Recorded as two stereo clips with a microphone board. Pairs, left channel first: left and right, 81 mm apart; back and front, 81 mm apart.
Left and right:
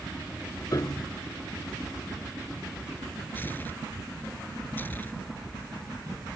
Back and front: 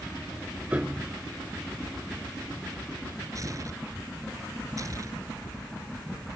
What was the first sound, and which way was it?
A piano, 65° left.